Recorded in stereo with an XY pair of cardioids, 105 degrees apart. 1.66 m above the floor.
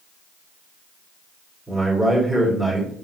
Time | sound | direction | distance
1.7 | a man speaking | 5° right | 2.5 m